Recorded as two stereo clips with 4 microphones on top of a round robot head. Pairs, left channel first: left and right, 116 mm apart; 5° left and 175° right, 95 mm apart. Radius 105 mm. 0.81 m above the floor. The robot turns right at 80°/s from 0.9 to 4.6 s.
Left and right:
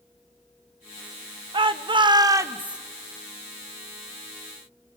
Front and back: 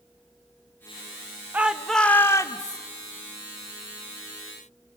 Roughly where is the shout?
Right.